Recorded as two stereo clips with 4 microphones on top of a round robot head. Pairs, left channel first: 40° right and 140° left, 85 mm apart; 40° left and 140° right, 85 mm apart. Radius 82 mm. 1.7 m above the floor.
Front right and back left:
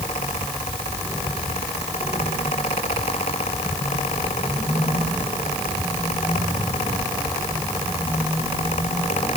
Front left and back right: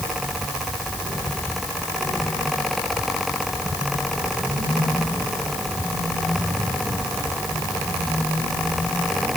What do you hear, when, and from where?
Only background noise.